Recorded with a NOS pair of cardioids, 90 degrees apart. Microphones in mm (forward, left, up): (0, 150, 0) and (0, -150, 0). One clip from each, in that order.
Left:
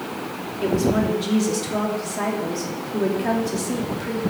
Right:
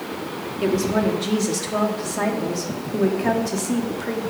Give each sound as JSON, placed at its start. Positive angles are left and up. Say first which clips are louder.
{"t": 0.6, "sound": "a woman speaking", "louder": "even", "azimuth_deg": -20, "distance_m": 2.5}